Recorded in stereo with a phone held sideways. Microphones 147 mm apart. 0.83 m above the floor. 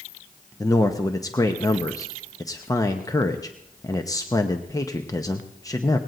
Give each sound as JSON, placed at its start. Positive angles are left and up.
{"t": 0.6, "sound": "a man speaking", "side_deg": 25, "distance_m": 0.8}